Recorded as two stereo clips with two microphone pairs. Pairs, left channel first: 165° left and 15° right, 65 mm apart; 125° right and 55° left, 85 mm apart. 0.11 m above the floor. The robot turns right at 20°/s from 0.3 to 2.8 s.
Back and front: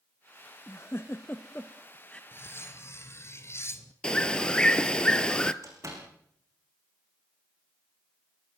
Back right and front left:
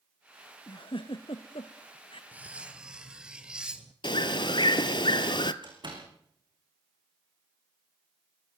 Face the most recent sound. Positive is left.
turn(degrees=25)